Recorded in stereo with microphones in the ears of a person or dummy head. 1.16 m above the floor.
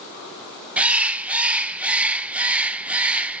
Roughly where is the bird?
Centre.